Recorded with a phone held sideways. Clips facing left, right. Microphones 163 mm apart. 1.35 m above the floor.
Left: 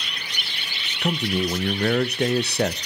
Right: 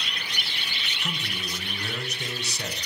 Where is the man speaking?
65° left (ahead or behind), 0.5 m.